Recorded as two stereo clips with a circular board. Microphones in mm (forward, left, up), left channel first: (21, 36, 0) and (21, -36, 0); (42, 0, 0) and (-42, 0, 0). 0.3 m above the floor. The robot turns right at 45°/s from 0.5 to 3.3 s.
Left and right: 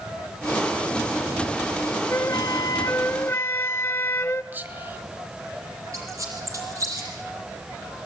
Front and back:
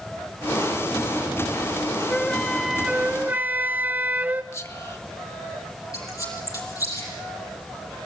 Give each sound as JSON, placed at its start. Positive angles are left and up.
{"t": 2.1, "sound": "a flute", "azimuth_deg": 70, "distance_m": 0.6}
{"t": 4.5, "sound": "whispering", "azimuth_deg": -40, "distance_m": 1.9}
{"t": 5.9, "sound": "a squeak", "azimuth_deg": -45, "distance_m": 7.0}